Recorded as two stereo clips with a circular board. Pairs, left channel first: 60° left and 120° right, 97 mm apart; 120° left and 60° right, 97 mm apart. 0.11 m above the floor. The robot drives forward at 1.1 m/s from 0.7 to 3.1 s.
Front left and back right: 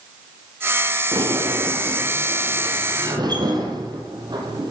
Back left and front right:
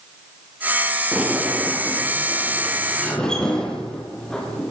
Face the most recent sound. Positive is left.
turn(degrees=-160)